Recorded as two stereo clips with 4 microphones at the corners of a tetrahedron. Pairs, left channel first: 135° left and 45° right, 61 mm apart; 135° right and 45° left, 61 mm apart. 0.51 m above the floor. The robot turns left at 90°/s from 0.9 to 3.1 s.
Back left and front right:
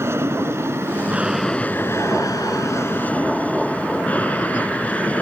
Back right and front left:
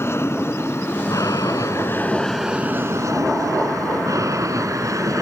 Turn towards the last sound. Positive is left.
turn(degrees=65)